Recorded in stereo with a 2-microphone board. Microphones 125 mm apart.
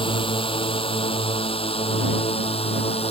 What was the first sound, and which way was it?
A drone, 45° left (ahead or behind).